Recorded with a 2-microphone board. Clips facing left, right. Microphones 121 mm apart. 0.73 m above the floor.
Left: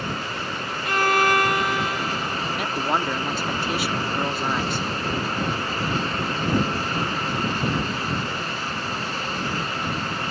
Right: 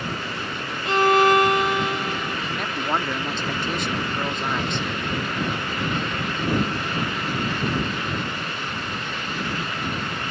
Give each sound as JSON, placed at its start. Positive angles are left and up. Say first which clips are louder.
{"t": 0.8, "sound": "a violin", "louder": "right 4 dB", "side_deg": -25}
{"t": 2.5, "sound": "a man speaking", "louder": "left 2 dB", "side_deg": 10}